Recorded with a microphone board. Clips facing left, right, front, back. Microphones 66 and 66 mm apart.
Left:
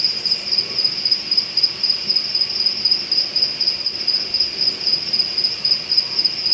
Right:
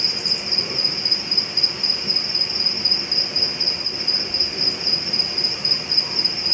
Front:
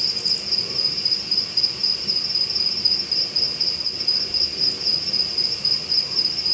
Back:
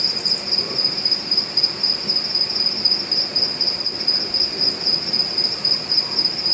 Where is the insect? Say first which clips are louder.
Right 2 dB, back 5 dB; 155° right, 1.4 m.